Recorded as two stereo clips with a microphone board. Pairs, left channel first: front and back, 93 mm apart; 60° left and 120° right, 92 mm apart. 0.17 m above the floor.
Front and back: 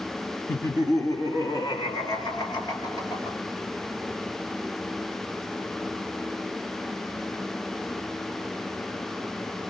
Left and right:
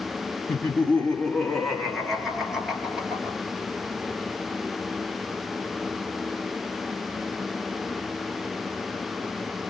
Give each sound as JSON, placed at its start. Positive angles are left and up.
{"t": 0.5, "sound": "laughter", "azimuth_deg": 5, "distance_m": 1.2}